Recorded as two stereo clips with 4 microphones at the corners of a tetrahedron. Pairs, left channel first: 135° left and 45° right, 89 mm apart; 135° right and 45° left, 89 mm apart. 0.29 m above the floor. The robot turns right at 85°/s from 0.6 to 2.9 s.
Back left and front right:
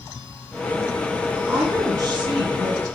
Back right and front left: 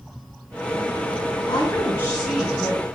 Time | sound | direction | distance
1.5 | a woman speaking | 115° right | 2 m